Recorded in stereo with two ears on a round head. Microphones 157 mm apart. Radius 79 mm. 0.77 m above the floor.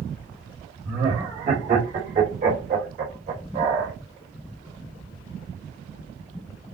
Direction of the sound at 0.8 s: 55° right (ahead or behind).